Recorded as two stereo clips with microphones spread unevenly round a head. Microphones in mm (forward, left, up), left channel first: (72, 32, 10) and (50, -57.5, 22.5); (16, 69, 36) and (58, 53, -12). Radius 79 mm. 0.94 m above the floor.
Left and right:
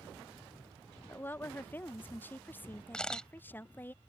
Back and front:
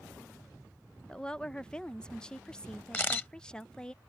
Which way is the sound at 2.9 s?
165° left.